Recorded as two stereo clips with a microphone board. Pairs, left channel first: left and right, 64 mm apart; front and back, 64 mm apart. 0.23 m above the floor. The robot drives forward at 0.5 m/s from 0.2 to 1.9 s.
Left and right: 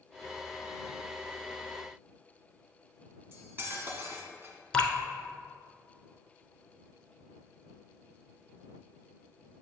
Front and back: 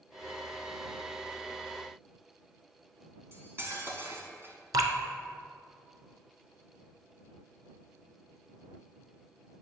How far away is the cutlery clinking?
About 1.1 m.